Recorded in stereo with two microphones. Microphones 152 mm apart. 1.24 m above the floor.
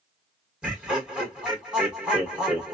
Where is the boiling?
No boiling in this recording.